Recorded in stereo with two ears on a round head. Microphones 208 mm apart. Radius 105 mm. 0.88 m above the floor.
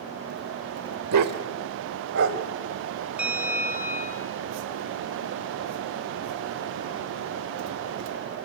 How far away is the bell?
About 3.5 m.